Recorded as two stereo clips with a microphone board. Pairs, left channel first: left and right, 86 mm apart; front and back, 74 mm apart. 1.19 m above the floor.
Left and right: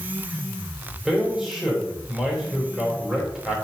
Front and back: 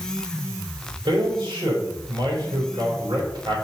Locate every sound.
1.1 s a man speaking: 175° right, 3.5 m